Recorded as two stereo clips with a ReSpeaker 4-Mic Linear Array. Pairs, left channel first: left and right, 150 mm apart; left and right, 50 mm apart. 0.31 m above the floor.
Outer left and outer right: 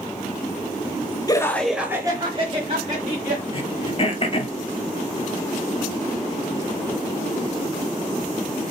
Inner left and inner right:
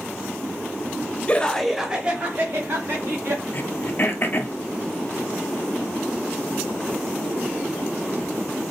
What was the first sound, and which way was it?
Laughter, 25° left (ahead or behind).